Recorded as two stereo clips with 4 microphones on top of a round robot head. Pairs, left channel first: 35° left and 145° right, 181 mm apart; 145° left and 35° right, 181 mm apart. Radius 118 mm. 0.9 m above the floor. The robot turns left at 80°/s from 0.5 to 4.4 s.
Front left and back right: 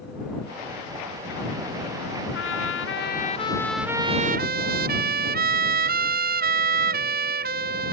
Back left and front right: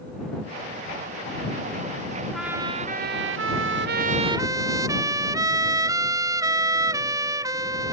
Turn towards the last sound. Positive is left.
turn(degrees=-105)